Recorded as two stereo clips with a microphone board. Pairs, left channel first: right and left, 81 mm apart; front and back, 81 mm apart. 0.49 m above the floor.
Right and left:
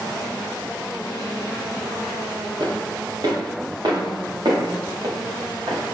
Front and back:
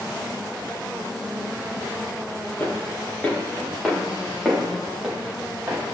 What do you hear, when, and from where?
2.6 s footsteps: 70° left, 4 m; by 5.8 s 105° left, 4.5 m